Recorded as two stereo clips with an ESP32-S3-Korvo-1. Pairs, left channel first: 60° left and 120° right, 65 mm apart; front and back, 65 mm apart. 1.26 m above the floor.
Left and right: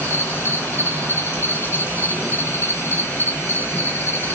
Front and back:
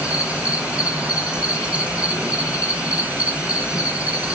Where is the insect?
115° left, 0.7 m.